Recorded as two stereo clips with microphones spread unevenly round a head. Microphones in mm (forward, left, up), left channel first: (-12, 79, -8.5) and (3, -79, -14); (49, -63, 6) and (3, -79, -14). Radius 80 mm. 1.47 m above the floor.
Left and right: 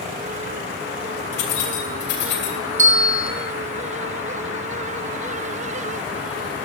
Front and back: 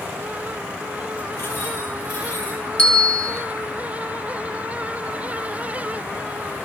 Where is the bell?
45° right, 3 m.